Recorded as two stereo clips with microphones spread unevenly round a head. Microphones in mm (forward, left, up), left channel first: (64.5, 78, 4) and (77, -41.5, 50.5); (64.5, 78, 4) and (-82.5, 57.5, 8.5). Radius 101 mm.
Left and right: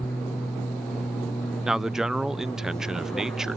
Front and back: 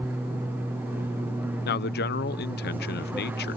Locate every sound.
0.0 s an aircraft: 125° left
1.6 s a man speaking: 5° left